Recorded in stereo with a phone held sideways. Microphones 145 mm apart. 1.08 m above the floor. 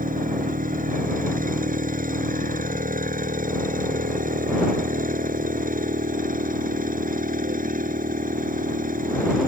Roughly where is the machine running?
Right.